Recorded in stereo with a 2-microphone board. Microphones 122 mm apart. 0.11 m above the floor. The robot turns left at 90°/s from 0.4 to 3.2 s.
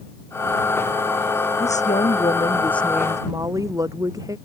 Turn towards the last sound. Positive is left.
turn(degrees=-30)